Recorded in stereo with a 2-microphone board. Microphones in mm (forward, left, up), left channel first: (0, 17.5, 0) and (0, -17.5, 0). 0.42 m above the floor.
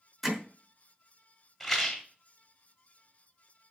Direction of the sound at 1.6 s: Centre (ahead or behind).